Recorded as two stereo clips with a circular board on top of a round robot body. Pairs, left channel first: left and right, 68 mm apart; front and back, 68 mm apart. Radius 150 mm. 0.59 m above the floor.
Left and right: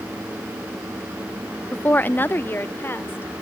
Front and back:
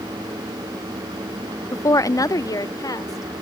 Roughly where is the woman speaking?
Ahead left.